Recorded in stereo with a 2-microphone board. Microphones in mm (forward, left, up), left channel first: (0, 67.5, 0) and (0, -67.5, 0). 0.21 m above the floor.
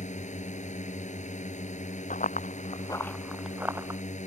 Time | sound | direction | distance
0.0 | a drone | 60° left (ahead or behind) | ?
2.1 | running footsteps | 75° left (ahead or behind) | ?